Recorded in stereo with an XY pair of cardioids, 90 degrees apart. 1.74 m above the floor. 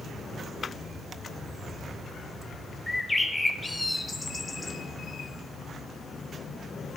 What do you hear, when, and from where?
2.9 s a bird: 20° left, 1.2 m